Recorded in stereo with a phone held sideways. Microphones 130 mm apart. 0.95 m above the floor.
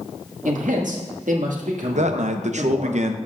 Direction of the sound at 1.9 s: 65° right (ahead or behind).